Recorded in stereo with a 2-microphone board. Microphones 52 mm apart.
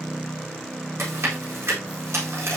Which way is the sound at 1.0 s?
55° right (ahead or behind).